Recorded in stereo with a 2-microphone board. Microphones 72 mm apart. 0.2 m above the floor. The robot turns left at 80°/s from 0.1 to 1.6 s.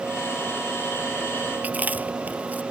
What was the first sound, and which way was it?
Chewing, 20° right (ahead or behind).